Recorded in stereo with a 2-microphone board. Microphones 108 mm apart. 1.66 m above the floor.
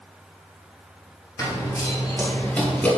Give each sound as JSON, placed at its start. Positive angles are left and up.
{"t": 1.4, "sound": "running footsteps", "side_deg": 30, "distance_m": 1.8}